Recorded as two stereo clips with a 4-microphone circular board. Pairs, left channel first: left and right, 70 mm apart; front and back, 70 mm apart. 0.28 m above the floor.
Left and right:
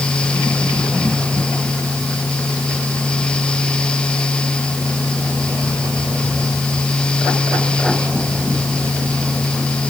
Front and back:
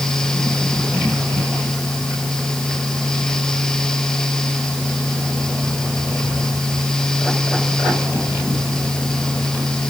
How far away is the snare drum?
I don't hear a snare drum.